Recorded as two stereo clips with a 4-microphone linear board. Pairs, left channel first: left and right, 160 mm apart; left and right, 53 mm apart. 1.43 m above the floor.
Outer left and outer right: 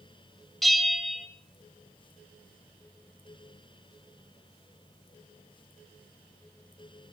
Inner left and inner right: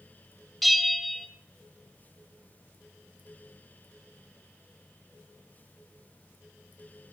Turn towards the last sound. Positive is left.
turn(degrees=0)  # may be behind; listen again after turning